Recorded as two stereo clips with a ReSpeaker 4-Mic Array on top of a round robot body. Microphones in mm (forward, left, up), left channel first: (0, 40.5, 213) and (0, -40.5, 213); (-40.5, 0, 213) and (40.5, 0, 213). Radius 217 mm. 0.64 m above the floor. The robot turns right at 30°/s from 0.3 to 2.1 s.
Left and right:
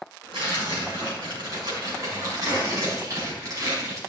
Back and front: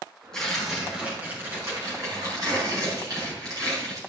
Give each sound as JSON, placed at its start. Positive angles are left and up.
{"t": 0.3, "sound": "tearing paper", "azimuth_deg": -95, "distance_m": 5.0}